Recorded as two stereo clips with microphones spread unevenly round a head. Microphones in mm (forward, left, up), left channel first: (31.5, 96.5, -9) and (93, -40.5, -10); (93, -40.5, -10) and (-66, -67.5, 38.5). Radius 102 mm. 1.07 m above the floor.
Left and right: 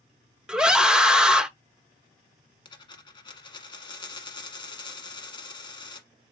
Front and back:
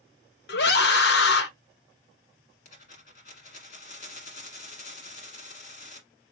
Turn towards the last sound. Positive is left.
turn(degrees=70)